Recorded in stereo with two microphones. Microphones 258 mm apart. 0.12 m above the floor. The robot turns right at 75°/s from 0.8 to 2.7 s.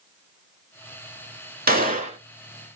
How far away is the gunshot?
About 0.6 m.